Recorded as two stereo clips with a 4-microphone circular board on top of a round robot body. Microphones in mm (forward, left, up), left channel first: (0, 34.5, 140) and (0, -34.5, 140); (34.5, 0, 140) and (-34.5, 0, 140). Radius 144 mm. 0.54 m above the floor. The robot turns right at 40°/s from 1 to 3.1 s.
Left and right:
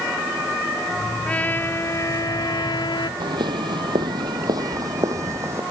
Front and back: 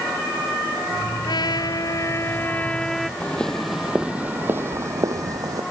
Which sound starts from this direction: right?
Footsteps, at 3.2 s.